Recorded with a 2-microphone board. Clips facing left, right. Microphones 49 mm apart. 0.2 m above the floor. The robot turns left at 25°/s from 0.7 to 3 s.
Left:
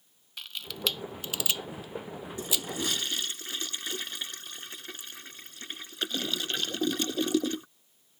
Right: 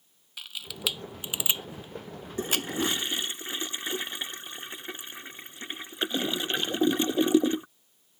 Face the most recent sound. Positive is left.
turn(degrees=-25)  # may be behind; listen again after turning